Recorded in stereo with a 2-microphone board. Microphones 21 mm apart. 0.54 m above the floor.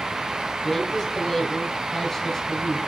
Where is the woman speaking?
15° left (ahead or behind), 4 m.